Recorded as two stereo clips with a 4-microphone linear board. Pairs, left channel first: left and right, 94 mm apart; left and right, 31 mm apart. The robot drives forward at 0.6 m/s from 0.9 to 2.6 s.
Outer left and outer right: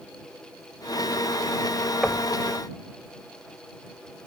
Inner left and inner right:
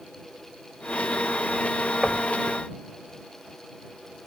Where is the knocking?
5° left (ahead or behind).